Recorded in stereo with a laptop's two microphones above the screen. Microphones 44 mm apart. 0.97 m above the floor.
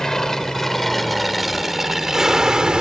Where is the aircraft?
15° left (ahead or behind); by 2.8 s 20° right (ahead or behind).